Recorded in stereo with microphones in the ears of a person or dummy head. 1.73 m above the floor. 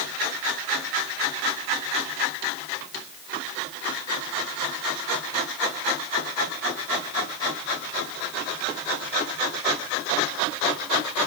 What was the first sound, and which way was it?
Only background noise.